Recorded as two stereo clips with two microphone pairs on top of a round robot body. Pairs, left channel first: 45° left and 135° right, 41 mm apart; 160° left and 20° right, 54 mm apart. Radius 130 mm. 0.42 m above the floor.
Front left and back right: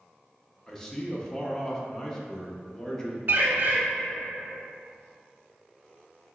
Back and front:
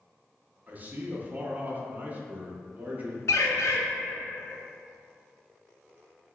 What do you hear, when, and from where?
0.7 s a man speaking: 10° left, 0.7 m
3.3 s a bird: straight behind, 0.7 m